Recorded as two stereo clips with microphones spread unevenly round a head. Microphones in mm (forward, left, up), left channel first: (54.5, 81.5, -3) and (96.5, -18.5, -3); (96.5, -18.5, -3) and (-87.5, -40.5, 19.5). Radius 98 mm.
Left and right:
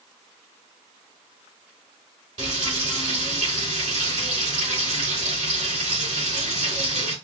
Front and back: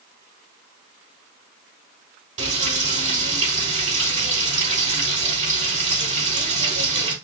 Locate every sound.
2.4 s frying: 130° right, 3 m